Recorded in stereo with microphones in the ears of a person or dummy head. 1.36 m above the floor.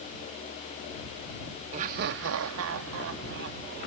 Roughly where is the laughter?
Right.